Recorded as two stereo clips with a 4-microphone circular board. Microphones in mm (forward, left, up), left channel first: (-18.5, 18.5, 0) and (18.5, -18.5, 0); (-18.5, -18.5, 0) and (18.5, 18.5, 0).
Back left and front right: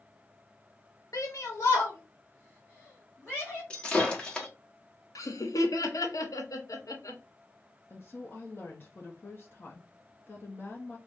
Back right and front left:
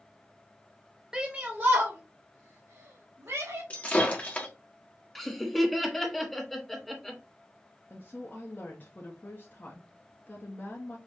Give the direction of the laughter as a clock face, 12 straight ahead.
7 o'clock.